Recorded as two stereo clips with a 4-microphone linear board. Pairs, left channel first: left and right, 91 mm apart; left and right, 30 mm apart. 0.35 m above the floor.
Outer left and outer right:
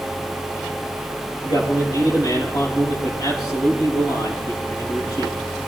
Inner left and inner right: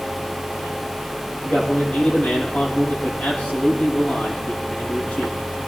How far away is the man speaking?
About 9 m.